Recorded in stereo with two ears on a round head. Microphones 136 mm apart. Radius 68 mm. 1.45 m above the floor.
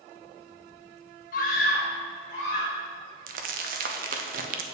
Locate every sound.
1.3 s a scream: 55° left (ahead or behind), 0.6 m
3.3 s crumpling: 60° right (ahead or behind), 0.5 m